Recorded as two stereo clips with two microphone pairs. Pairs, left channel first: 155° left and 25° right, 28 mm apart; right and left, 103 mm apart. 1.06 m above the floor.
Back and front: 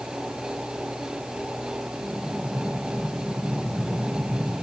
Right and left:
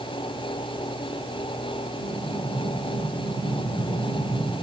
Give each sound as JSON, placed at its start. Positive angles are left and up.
{"t": 2.0, "sound": "an explosion", "azimuth_deg": 70, "distance_m": 8.5}